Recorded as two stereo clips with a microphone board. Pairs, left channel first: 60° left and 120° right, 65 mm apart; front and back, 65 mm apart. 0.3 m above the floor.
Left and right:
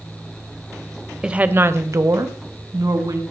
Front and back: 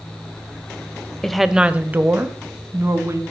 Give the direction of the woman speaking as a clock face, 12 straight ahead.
2 o'clock.